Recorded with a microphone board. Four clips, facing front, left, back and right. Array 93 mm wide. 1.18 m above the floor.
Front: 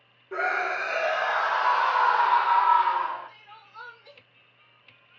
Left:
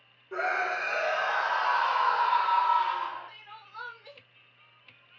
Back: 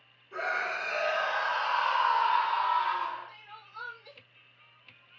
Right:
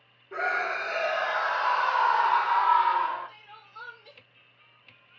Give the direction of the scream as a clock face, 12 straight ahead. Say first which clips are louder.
Right 1 dB, front 5 dB; 12 o'clock.